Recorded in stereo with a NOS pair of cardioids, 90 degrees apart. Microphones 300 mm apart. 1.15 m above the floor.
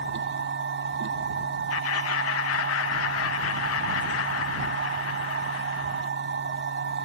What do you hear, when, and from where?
0.0 s a machine running: 40° right
1.7 s laughter: 55° left